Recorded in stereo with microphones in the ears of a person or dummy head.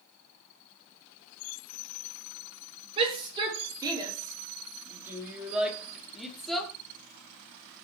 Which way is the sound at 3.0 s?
30° right (ahead or behind).